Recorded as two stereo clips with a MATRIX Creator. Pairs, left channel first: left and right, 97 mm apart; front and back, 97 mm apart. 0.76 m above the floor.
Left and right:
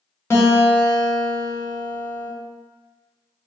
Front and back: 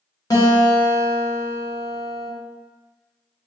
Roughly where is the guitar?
Ahead left.